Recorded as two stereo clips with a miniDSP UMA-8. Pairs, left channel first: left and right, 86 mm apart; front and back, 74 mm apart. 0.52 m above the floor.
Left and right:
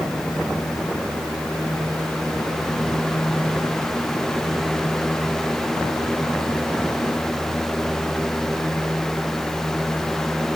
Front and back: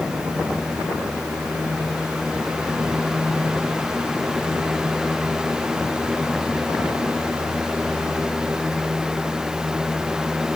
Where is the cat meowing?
No cat meowing in this recording.